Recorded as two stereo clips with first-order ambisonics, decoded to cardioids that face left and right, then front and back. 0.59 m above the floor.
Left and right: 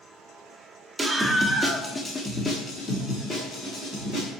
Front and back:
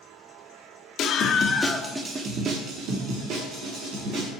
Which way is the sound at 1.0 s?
15° right.